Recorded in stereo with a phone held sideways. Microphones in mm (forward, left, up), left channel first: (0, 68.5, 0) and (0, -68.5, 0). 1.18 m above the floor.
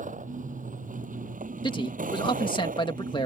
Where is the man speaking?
35° left (ahead or behind).